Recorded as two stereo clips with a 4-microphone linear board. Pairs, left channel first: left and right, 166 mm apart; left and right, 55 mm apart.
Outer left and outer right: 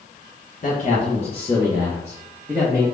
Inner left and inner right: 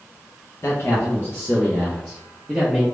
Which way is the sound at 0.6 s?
55° left (ahead or behind).